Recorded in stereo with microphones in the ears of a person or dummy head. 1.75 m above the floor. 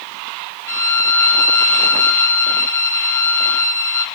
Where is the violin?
10° left (ahead or behind), 0.6 m.